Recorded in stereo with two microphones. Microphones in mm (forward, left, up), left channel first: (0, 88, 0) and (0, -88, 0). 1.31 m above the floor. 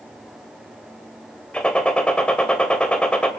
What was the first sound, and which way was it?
A gunshot, 5° left (ahead or behind).